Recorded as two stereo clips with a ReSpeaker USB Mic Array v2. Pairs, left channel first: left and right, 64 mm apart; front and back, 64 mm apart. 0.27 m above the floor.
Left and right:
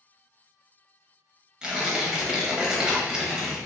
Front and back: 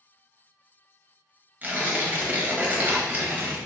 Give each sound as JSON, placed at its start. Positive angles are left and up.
{"t": 1.6, "sound": "tearing paper", "azimuth_deg": -155, "distance_m": 0.7}